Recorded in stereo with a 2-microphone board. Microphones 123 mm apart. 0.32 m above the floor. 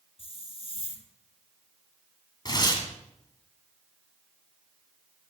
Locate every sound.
0.2 s a hiss: 50° left (ahead or behind), 1.4 m
2.5 s tearing paper: 35° left (ahead or behind), 2 m